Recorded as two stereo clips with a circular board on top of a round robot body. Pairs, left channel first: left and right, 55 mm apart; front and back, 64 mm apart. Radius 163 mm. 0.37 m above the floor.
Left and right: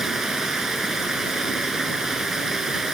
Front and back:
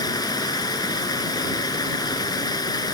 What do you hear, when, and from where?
0.0 s running water: 5° right